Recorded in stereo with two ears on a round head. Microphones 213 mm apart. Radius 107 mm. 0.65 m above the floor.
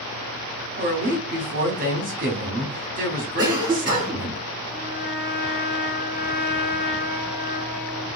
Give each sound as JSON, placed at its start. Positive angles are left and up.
{"t": 0.8, "sound": "a woman speaking", "side_deg": -35, "distance_m": 1.2}
{"t": 3.4, "sound": "a cough", "side_deg": -15, "distance_m": 1.9}
{"t": 4.7, "sound": "a trumpet", "side_deg": 0, "distance_m": 2.0}